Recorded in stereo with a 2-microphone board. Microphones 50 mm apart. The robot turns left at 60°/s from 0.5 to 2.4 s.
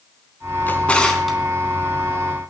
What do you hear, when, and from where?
0.7 s a drawer: 40° left (ahead or behind), 3.5 m; by 1.4 s 5° right (ahead or behind), 3.5 m